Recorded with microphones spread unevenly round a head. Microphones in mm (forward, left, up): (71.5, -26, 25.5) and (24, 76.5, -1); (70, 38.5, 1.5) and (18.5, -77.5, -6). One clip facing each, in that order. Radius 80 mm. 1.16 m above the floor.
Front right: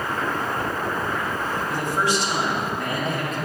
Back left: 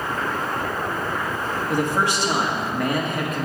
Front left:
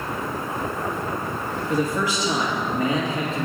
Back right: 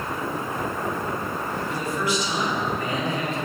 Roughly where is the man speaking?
Left.